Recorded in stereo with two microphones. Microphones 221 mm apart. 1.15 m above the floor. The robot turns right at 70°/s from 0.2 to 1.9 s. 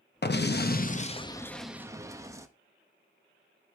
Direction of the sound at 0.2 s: 80° left.